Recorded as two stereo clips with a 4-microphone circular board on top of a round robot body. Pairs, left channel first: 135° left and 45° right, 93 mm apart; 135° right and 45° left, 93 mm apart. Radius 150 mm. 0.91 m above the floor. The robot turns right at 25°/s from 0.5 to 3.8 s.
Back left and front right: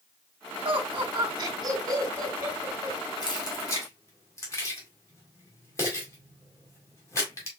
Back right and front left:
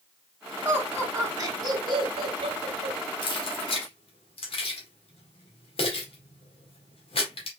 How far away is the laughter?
About 1.9 m.